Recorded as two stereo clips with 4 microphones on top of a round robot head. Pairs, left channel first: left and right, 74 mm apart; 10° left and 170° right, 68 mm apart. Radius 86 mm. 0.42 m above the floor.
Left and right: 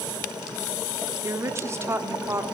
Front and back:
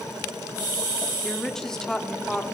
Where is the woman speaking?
70° right, 0.9 m.